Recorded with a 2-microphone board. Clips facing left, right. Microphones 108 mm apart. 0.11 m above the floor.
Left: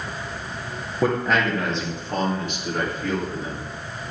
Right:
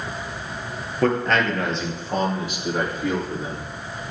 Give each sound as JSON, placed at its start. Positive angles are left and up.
{"t": 1.0, "sound": "a man speaking", "side_deg": 10, "distance_m": 2.5}